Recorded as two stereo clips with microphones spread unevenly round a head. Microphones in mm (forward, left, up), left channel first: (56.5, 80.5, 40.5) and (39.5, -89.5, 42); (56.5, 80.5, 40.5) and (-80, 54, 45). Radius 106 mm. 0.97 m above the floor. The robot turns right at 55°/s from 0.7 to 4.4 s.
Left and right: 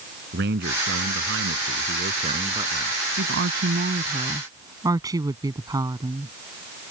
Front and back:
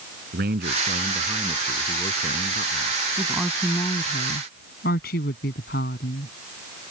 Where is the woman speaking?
95° right; by 6.3 s 25° right.